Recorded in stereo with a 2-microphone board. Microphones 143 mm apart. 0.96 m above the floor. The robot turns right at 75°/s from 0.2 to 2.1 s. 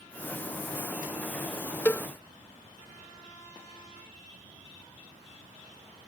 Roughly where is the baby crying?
I don't hear a baby crying.